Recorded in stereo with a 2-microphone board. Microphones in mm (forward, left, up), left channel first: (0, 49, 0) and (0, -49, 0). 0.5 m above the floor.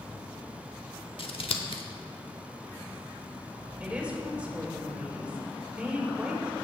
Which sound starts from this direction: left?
Scissors, at 1.2 s.